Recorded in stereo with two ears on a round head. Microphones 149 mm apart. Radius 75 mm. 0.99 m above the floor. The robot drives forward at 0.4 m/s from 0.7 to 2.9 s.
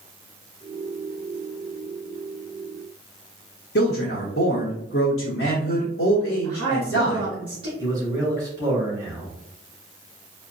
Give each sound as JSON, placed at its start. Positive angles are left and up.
{"t": 3.8, "sound": "a man speaking", "side_deg": 75, "distance_m": 0.9}
{"t": 6.4, "sound": "a woman speaking", "side_deg": -30, "distance_m": 1.7}
{"t": 7.8, "sound": "a man speaking", "side_deg": -20, "distance_m": 2.0}